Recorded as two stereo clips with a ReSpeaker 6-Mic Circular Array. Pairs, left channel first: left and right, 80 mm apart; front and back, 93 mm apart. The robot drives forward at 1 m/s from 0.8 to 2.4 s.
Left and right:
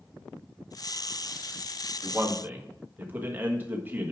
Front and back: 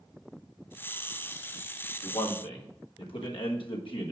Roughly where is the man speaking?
Ahead.